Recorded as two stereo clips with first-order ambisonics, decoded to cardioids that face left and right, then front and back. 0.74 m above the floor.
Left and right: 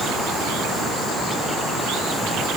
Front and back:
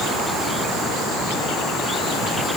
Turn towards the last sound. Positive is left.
No sound to turn to.